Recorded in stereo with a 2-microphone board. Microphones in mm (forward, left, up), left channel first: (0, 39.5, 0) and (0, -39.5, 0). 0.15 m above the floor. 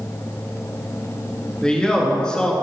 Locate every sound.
1.6 s a man speaking: 10° left (ahead or behind), 1.6 m